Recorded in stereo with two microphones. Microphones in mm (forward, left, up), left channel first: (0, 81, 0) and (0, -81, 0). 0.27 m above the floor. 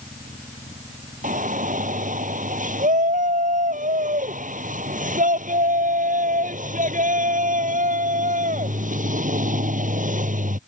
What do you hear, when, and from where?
1.2 s a shout: 55° right (ahead or behind)